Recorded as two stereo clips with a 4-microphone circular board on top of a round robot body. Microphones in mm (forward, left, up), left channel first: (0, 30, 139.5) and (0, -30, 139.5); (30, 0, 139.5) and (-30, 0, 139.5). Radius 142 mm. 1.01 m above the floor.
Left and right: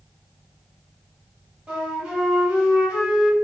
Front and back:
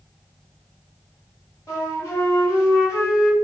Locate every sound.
1.7 s a flute: 30° right, 1.3 m